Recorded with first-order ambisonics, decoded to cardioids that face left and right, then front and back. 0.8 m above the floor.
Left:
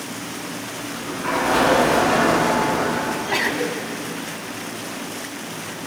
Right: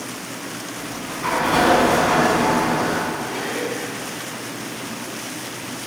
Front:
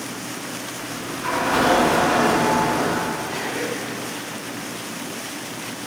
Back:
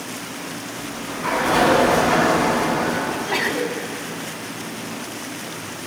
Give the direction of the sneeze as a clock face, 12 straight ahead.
7 o'clock.